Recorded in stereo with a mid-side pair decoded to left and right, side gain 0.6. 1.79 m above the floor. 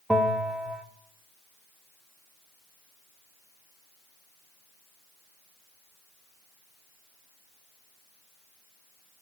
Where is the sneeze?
No sneeze in this recording.